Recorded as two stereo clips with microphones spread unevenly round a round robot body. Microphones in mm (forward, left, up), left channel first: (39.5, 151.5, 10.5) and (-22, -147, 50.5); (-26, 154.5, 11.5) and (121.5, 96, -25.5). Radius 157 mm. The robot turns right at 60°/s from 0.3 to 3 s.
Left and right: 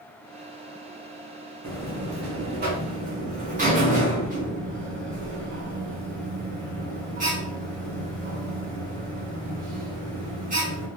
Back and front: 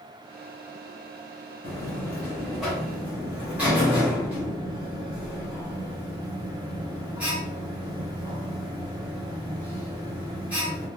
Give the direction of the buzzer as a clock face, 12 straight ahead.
5 o'clock.